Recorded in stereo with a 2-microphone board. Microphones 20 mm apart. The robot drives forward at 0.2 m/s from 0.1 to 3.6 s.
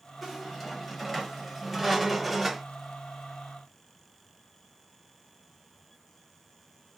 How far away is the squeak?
About 1.1 m.